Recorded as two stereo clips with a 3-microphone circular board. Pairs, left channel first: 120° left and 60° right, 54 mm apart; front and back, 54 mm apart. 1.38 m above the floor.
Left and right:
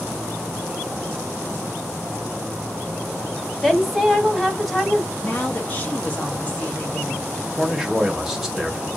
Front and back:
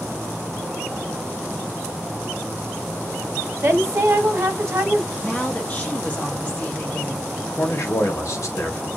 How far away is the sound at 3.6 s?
About 0.9 m.